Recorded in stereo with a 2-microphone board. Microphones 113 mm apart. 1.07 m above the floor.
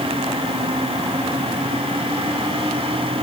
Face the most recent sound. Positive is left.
No sound to turn to.